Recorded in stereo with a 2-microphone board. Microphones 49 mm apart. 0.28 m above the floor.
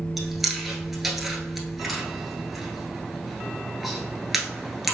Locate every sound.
0.2 s chewing: 5° right (ahead or behind), 1.0 m